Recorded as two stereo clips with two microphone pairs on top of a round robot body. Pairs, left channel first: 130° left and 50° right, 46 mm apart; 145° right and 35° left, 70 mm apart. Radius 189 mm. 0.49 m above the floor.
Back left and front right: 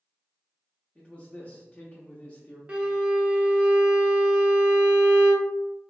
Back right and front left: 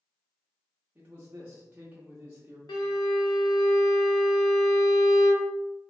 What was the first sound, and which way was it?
A man speaking, 85° left.